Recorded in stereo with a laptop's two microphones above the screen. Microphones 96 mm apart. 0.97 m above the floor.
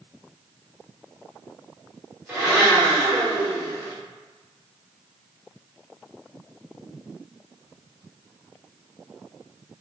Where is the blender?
15° right (ahead or behind), 0.7 m.